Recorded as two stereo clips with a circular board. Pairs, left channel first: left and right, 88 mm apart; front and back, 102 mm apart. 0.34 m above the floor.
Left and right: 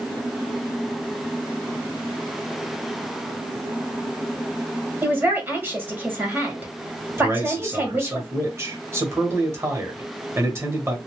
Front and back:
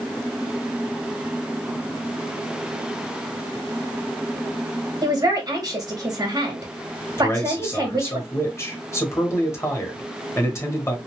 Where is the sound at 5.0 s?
145° right, 1.4 m.